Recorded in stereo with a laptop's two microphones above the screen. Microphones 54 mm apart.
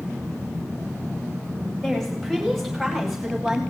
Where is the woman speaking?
5° left (ahead or behind), 4 m; by 3.6 s 5° right (ahead or behind), 6 m.